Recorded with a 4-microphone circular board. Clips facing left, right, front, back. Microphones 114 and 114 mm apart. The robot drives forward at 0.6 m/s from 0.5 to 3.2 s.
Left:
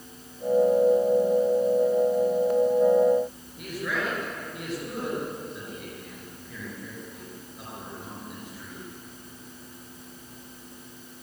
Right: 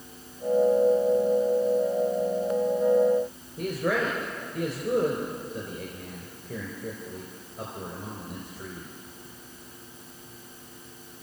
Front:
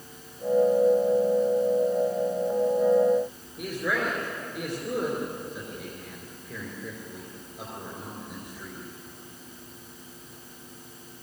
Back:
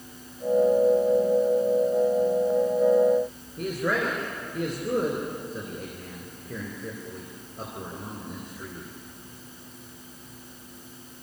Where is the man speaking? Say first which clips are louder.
Right 5 dB, back 2 dB; 135° right, 3.5 m.